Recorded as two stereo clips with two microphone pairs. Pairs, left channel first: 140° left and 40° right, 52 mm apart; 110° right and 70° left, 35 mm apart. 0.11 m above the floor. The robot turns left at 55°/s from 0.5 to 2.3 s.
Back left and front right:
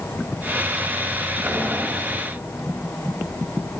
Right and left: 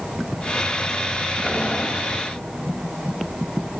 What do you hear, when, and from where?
1.4 s boiling: 10° right, 1.8 m; by 1.9 s 35° right, 1.8 m